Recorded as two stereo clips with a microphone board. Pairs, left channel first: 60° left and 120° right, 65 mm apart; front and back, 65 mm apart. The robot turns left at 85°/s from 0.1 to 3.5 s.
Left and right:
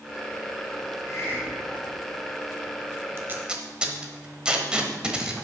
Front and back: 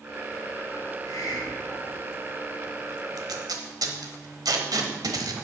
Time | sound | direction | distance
1.1 | a hiss | 25° left | 2 m
3.2 | tape being pulled | 165° right | 1.3 m